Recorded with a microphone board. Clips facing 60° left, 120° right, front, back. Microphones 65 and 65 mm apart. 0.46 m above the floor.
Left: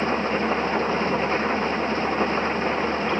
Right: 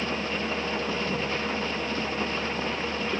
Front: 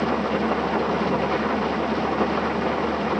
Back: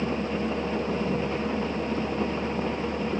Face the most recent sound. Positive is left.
turn(degrees=5)